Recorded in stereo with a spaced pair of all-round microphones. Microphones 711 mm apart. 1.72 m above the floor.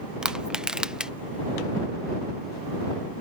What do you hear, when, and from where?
0.2 s crushing: centre (ahead or behind)